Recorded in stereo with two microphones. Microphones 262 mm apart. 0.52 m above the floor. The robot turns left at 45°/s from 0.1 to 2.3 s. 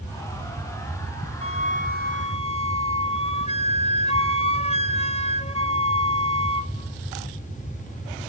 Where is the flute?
65° left, 0.8 m; by 6.7 s 25° left, 0.8 m.